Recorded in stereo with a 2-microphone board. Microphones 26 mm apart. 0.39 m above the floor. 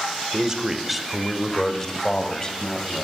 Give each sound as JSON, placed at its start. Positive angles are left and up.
{"t": 0.3, "sound": "a man speaking", "side_deg": -25, "distance_m": 1.1}